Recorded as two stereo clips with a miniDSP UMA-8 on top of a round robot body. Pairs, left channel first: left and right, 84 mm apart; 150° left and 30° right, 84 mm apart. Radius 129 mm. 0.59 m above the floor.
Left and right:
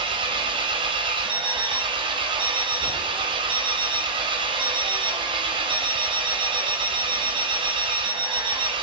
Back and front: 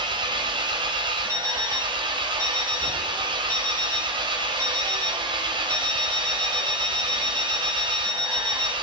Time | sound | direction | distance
0.0 | an engine running | 65° right | 0.9 m
1.3 | an alarm clock | 85° right | 1.9 m